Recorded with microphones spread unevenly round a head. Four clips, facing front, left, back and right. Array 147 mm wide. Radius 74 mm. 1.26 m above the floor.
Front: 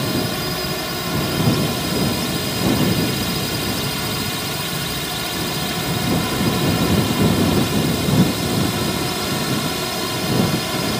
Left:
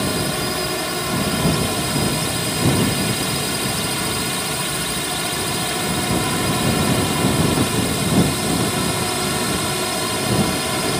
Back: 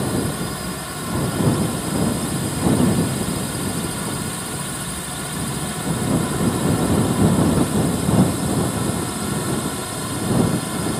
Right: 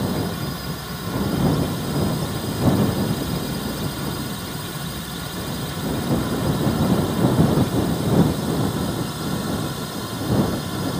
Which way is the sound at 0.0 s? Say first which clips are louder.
Left 3 dB, front 1 dB; 60° left.